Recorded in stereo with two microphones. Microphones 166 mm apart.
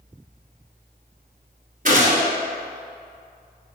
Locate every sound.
1.9 s a gunshot: 55° right (ahead or behind), 1.7 m